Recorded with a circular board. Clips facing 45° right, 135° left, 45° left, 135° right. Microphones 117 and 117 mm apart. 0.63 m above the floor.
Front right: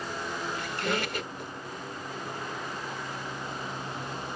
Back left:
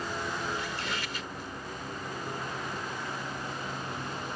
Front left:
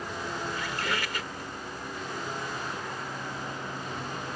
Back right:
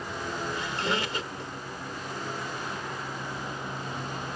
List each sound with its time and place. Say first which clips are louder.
0.5 s a squeak: front right 4 dB, back right 2 dB; 70° right